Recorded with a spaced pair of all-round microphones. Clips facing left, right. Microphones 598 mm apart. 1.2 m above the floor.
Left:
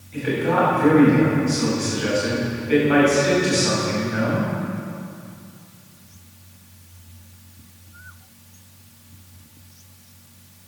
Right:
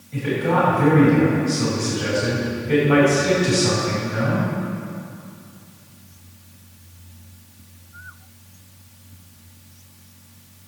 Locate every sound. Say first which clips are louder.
0.1 s a man speaking: even; 60° right (ahead or behind), 6.5 m